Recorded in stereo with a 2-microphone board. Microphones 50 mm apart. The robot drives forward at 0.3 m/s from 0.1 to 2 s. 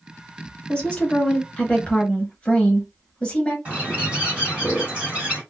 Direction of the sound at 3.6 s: 25° right (ahead or behind).